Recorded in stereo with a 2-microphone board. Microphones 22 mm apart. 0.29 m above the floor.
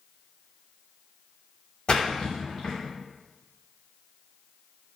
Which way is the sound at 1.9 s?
45° left (ahead or behind).